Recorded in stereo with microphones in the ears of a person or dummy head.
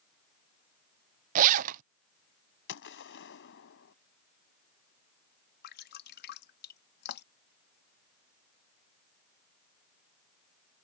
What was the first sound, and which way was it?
A zipper, 45° right (ahead or behind).